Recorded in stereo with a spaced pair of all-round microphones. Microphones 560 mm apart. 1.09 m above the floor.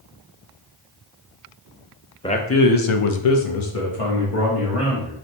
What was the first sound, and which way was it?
A man speaking, 10° left (ahead or behind).